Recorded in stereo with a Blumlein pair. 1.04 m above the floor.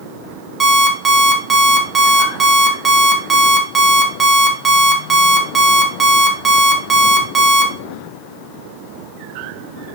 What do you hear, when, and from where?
0.6 s an alarm clock: 15° right, 0.9 m